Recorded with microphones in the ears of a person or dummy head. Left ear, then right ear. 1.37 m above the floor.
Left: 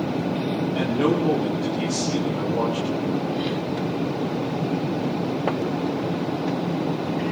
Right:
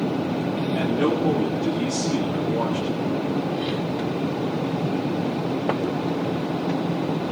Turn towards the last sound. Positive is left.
turn(degrees=5)  # may be behind; listen again after turning